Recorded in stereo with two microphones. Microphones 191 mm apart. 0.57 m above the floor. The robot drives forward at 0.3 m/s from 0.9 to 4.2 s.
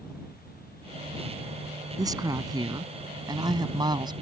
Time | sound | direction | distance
2.0 | a woman speaking | 20° right (ahead or behind) | ?